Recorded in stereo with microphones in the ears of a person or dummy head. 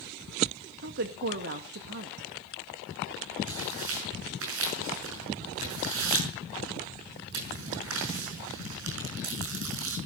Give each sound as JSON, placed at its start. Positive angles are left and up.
{"t": 0.8, "sound": "a woman speaking", "side_deg": -50, "distance_m": 1.7}
{"t": 3.5, "sound": "tearing paper", "side_deg": -70, "distance_m": 6.5}